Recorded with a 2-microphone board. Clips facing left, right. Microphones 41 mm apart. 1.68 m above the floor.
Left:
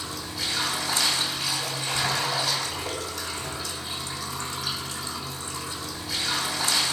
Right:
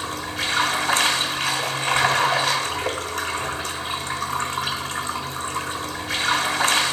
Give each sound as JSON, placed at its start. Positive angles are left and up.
{"t": 0.0, "sound": "running water", "side_deg": -50, "distance_m": 1.7}